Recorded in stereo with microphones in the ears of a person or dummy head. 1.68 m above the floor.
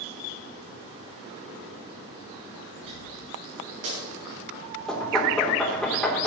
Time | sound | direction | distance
2.8 | a dropped coin | 45° right (ahead or behind) | 6 m
4.9 | knocking | centre (ahead or behind) | 3 m